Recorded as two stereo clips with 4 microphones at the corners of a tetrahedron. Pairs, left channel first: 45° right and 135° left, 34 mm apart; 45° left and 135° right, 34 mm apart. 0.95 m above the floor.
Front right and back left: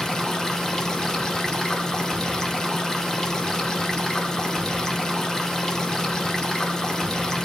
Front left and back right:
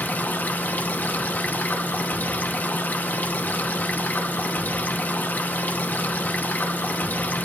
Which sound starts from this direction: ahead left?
Running water, at 0.0 s.